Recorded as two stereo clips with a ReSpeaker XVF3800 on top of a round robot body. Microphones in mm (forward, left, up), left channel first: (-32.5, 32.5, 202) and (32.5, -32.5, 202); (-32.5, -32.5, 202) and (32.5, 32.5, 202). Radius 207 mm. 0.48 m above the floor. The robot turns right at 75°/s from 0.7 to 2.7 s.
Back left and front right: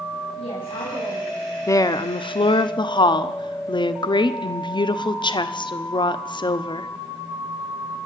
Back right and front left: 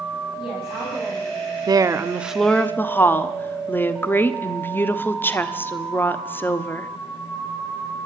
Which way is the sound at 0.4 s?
115° left.